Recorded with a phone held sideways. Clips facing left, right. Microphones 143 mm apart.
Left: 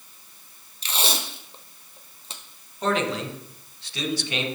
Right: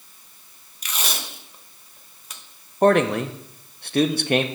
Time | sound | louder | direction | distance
0.8 | tape being pulled | left 3 dB | 30° left (ahead or behind) | 0.6 m
2.8 | a man speaking | right 8 dB | 55° right (ahead or behind) | 0.5 m